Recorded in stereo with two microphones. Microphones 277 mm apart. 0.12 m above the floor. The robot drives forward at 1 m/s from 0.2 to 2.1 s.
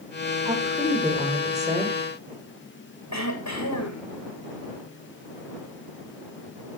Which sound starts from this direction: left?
Throat clearing, at 3.1 s.